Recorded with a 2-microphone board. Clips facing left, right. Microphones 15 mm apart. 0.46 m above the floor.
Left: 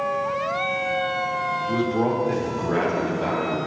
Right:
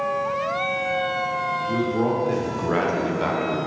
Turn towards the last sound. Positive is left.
turn(degrees=-45)  # may be behind; listen again after turning